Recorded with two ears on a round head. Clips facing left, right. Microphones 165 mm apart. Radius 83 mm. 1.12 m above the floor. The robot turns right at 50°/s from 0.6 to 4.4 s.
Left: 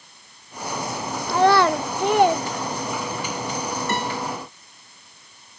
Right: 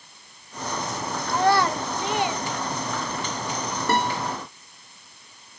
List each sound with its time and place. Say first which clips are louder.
1.3 s a child speaking: left 4 dB; 60° left (ahead or behind), 0.5 m; by 3.3 s 5° right (ahead or behind), 0.5 m
3.9 s a guitar: right 6 dB; 30° right (ahead or behind), 4.5 m; by 4.3 s 55° right (ahead or behind), 4.5 m